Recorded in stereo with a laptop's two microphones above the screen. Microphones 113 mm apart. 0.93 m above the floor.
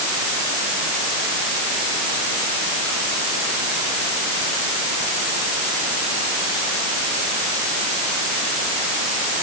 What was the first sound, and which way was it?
Only background noise.